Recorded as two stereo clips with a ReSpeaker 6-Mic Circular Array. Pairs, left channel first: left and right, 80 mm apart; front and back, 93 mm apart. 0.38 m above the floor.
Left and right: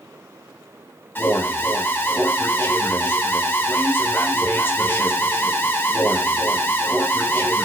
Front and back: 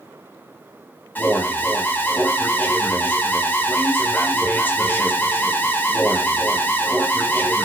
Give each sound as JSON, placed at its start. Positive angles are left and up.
{"t": 1.1, "sound": "an alarm", "azimuth_deg": 50, "distance_m": 0.5}